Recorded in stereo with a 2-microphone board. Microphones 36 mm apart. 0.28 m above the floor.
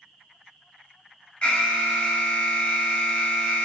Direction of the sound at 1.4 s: 35° left (ahead or behind).